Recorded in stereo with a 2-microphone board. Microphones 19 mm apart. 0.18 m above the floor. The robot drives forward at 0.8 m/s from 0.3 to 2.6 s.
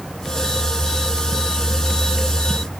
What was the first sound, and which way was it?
Only background noise.